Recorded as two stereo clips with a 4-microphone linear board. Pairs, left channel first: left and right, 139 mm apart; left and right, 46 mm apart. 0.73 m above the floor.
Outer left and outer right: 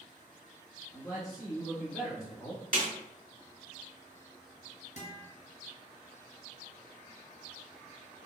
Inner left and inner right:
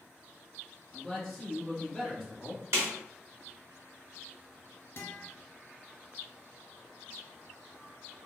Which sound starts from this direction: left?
A guitar, at 5.0 s.